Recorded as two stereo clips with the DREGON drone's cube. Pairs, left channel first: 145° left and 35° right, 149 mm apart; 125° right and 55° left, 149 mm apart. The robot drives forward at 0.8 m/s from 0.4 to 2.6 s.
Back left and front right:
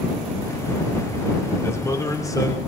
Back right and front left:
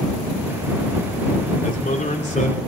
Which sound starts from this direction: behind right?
A man speaking, at 1.6 s.